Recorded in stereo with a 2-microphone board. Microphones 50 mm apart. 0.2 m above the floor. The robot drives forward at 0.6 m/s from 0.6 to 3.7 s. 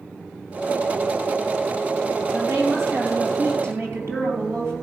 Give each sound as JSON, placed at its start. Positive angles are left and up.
{"t": 2.3, "sound": "a woman speaking", "side_deg": -65, "distance_m": 4.5}